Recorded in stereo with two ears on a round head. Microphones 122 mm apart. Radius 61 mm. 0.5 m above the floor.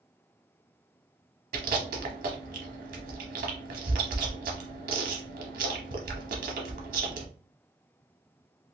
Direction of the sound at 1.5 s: 70° right (ahead or behind).